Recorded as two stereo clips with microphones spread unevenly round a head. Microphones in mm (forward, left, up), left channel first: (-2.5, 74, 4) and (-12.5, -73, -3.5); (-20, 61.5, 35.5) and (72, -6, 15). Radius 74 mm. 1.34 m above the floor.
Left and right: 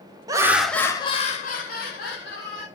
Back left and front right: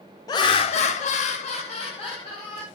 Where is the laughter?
155° right, 0.5 m; by 2.7 s 95° left, 1.2 m.